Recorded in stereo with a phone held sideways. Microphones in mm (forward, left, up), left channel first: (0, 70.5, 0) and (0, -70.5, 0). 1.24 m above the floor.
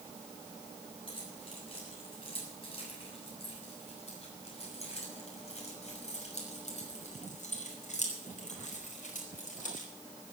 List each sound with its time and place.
1.1 s keys jangling: 40° left (ahead or behind), 8 m; by 9.9 s 70° left (ahead or behind), 4.5 m